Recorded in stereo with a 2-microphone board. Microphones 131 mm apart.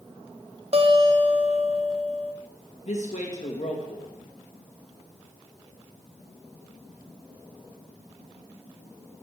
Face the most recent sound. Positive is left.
turn(degrees=60)  # may be behind; listen again after turning